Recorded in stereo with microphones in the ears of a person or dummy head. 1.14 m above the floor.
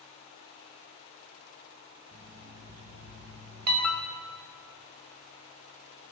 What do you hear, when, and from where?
2.1 s an alarm clock: 55° right (ahead or behind), 1.9 m
3.8 s a piano: 10° left (ahead or behind), 0.6 m